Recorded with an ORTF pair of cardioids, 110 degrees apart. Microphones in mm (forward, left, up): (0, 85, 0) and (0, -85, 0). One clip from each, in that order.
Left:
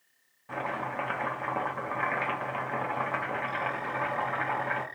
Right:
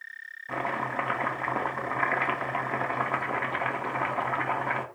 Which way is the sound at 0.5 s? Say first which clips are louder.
Right 3 dB; 20° right.